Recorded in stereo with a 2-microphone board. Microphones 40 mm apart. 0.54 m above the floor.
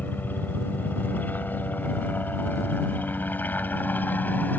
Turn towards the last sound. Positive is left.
turn(degrees=50)  # may be behind; listen again after turning